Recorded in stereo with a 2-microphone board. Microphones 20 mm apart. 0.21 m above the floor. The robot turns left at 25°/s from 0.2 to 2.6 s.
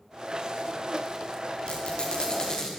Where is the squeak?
55° left (ahead or behind), 8.5 m; by 2.7 s 30° left (ahead or behind), 8.5 m.